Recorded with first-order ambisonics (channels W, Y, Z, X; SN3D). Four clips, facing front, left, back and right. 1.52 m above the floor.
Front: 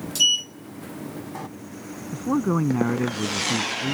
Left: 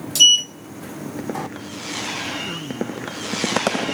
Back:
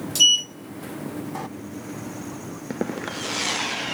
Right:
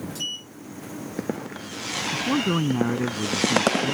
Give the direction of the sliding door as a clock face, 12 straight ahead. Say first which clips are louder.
Left 24 dB, back 3 dB; 9 o'clock.